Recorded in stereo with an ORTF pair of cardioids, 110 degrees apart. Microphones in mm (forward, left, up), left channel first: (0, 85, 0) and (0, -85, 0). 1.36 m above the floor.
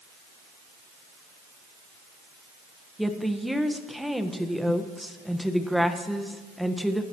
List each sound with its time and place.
3.0 s a woman speaking: straight ahead, 1.3 m